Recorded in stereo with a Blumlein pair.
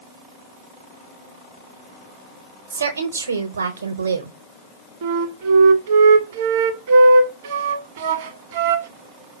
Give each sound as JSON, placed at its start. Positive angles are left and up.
{"t": 2.7, "sound": "a woman speaking", "azimuth_deg": -70, "distance_m": 0.8}
{"t": 5.0, "sound": "a flute", "azimuth_deg": -55, "distance_m": 0.8}